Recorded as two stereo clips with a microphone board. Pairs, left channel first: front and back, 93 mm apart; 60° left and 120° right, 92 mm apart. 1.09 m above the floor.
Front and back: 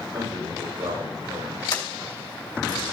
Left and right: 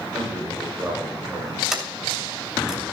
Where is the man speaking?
175° right, 5 m.